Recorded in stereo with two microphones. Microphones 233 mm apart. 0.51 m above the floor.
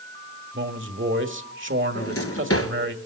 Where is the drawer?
80° left, 2.5 m.